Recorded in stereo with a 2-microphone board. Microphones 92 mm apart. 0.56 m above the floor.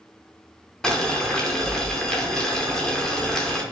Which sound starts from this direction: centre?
Boiling, at 0.8 s.